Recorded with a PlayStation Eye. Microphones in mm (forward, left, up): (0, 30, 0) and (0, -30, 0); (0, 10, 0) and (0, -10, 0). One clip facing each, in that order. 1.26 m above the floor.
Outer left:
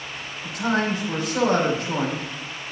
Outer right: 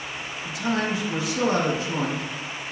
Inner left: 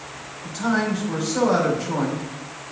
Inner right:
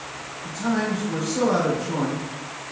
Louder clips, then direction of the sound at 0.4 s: Outer left 3 dB, inner left 2 dB; 65° left (ahead or behind).